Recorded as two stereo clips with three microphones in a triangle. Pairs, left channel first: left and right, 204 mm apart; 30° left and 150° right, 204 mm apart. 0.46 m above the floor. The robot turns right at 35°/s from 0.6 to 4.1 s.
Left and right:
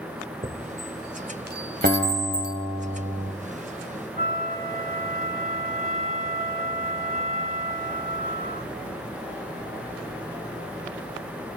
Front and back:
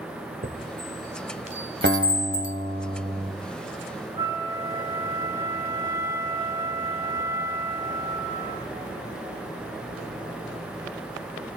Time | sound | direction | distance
0.4 | a chime | 130° right | 2 m
1.8 | a guitar | 130° right | 2.5 m
4.2 | a flute | 45° left | 4.5 m